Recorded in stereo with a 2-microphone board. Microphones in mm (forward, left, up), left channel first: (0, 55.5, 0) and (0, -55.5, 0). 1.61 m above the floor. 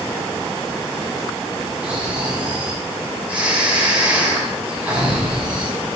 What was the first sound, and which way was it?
Snoring, 10° right (ahead or behind).